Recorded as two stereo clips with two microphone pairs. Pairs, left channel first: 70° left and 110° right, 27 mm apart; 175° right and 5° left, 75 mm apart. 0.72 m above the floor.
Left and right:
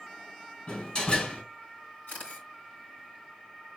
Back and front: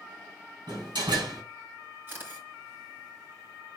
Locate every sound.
0.7 s a door slam: 15° left, 4 m
2.1 s a camera shutter: 65° left, 5 m